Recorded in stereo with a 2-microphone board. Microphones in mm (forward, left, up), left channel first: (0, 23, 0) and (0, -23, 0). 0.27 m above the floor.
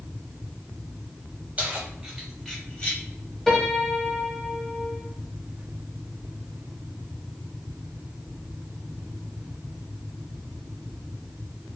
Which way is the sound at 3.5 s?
5° left (ahead or behind).